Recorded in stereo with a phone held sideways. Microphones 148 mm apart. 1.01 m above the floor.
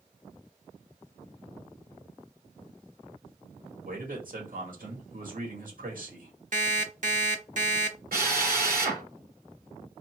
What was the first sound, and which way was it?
A man speaking, 70° right (ahead or behind).